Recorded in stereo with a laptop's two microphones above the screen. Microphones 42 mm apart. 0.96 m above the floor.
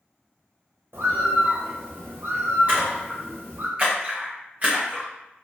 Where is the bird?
70° right (ahead or behind), 0.7 m.